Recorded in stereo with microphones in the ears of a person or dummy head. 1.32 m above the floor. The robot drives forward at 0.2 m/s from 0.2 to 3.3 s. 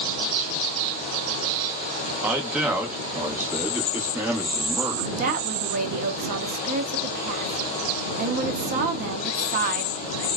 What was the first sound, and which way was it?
A man speaking, 5° right (ahead or behind).